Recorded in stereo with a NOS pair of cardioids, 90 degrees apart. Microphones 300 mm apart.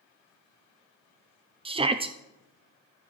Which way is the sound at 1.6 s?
20° right.